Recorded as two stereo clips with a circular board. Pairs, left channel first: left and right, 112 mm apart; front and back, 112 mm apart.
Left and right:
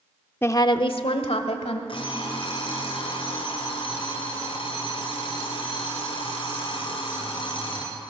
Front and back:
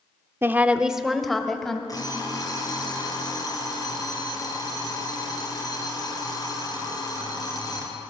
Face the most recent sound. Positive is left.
turn(degrees=55)